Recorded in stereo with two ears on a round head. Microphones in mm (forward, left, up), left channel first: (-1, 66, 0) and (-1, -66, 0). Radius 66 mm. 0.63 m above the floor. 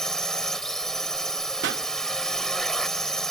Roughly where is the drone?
Centre.